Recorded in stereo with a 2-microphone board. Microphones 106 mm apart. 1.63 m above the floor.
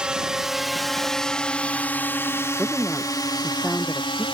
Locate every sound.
0.0 s a drone: 10° right (ahead or behind); by 4.3 s 50° left (ahead or behind)
2.6 s a woman speaking: centre (ahead or behind)